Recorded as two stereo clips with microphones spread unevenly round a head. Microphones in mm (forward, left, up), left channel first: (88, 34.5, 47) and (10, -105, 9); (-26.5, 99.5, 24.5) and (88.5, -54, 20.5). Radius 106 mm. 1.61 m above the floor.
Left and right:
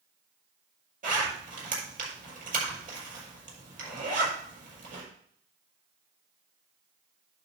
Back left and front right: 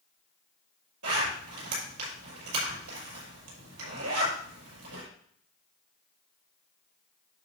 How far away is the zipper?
About 6 m.